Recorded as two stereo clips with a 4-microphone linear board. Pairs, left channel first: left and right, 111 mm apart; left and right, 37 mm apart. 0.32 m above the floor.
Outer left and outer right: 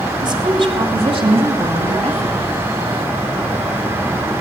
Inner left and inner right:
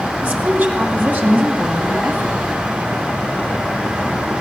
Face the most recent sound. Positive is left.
turn(degrees=-65)  # may be behind; listen again after turning